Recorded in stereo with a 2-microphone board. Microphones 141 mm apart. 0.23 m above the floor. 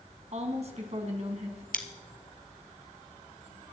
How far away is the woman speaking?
About 2 m.